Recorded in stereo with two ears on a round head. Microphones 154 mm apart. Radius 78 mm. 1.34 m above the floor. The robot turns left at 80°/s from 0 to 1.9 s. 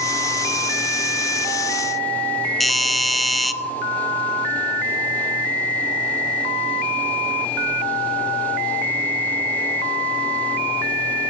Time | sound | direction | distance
2.6 | a doorbell | centre (ahead or behind) | 0.6 m